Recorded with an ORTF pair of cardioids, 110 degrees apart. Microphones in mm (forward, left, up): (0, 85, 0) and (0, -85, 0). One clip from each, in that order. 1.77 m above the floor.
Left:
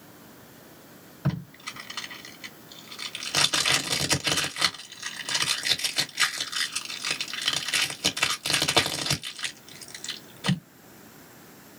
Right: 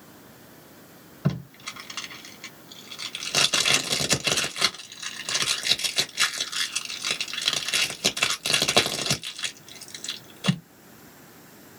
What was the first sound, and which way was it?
Tape being pulled, 10° right.